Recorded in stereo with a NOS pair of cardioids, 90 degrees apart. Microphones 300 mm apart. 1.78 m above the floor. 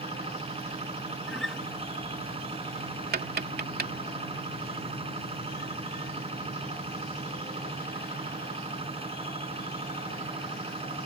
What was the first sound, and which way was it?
A machine running, 20° right.